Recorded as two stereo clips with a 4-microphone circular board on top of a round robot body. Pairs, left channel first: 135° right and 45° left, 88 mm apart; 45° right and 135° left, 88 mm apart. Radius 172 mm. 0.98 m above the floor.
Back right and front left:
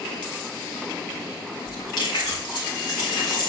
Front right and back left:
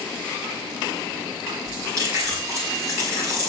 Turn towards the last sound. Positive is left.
turn(degrees=-170)